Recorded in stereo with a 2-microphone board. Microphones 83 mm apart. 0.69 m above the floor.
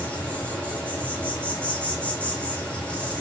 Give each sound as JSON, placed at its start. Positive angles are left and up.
{"t": 0.0, "sound": "an insect", "side_deg": 15, "distance_m": 4.5}